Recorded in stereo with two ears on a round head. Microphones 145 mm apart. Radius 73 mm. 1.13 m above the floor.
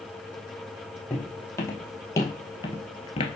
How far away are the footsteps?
About 2.5 m.